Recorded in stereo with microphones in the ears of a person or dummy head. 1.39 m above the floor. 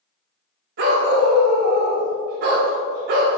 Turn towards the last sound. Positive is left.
turn(degrees=-55)  # may be behind; listen again after turning